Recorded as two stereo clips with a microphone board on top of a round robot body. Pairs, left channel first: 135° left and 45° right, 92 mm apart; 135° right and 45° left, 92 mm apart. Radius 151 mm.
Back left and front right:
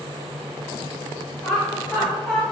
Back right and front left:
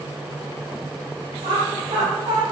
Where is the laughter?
55° left, 1.1 m.